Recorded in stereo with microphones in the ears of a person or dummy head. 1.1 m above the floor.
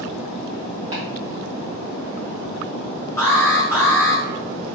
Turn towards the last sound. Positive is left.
turn(degrees=10)  # may be behind; listen again after turning